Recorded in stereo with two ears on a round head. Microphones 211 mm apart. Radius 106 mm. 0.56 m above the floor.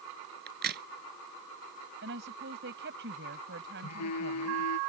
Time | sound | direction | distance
0.5 | a crack | 45° right (ahead or behind) | ?
2.0 | a woman speaking | 50° right (ahead or behind) | ?
3.8 | a phone buzzing | 80° left | ?